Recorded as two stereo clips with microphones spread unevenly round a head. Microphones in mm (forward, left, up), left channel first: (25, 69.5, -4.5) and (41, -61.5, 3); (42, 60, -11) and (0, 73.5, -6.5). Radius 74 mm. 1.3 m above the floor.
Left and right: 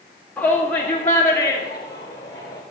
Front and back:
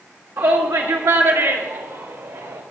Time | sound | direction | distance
0.4 | a shout | straight behind | 1.7 m